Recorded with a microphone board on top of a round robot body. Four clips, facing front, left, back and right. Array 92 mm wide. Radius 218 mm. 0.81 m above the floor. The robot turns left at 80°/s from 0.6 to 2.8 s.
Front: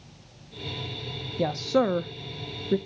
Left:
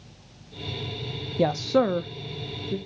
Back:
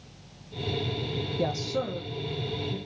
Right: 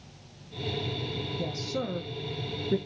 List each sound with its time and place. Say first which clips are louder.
1.4 s a woman speaking: left 14 dB, front 7 dB; 80° left, 0.7 m; by 2.8 s 30° right, 0.7 m